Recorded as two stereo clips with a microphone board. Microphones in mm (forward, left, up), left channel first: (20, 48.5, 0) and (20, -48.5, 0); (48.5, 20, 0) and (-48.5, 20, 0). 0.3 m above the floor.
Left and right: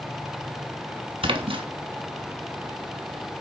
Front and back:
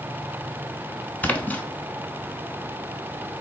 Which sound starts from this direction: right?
A splash, at 1.2 s.